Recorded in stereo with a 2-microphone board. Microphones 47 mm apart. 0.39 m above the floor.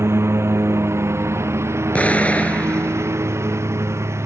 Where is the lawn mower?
70° right (ahead or behind); by 4.3 s 80° right.